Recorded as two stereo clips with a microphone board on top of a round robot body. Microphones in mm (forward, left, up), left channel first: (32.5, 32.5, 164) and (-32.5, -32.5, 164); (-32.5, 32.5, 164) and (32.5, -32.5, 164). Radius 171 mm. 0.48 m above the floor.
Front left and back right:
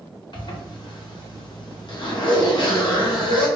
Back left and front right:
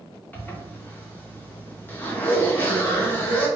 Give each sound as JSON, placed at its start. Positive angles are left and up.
{"t": 0.3, "sound": "a zipper", "azimuth_deg": 70, "distance_m": 1.9}